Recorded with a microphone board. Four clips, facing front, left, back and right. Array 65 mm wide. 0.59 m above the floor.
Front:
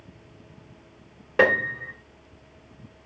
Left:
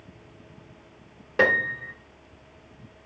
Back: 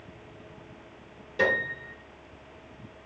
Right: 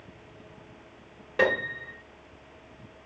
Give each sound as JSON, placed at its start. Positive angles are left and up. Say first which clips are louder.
{"t": 1.4, "sound": "a piano", "louder": "left 3 dB, front 5 dB", "azimuth_deg": 15, "distance_m": 0.7}